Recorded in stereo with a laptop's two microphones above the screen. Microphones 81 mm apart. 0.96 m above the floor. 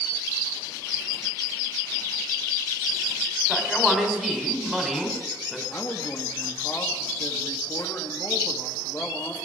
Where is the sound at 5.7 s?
30° left (ahead or behind), 2 m.